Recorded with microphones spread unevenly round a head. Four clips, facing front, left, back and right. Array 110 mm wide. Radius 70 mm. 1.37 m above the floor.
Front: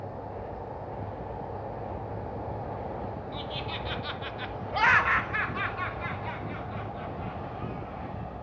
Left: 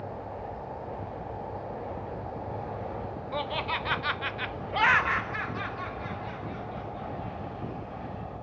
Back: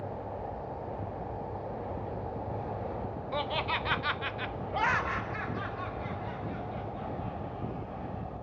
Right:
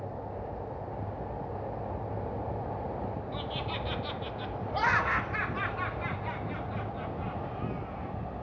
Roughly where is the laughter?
Behind left.